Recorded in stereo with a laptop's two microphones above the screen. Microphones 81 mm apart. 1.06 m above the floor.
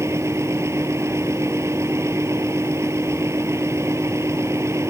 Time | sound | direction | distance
0.0 | a fan | 35° right (ahead or behind) | ?